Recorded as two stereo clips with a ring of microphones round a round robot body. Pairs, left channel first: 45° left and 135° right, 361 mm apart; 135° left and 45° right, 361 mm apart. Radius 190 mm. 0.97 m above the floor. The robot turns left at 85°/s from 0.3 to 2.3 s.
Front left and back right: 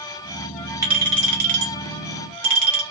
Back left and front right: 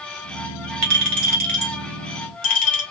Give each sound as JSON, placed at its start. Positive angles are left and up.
{"t": 0.8, "sound": "a clink", "azimuth_deg": -50, "distance_m": 1.2}